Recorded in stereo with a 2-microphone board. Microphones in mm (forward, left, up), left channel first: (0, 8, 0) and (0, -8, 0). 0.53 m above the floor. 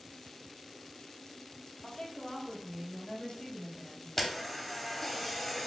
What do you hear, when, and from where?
1.8 s a woman speaking: 65° left (ahead or behind), 1.7 m; by 4.1 s 70° left (ahead or behind), 2.5 m
4.2 s a camera shutter: 15° left (ahead or behind), 0.8 m